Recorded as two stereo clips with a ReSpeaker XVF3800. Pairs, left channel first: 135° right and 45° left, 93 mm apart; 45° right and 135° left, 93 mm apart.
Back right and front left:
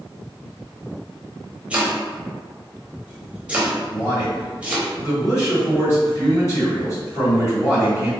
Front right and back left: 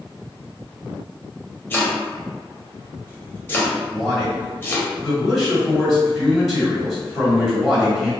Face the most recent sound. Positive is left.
turn(degrees=-125)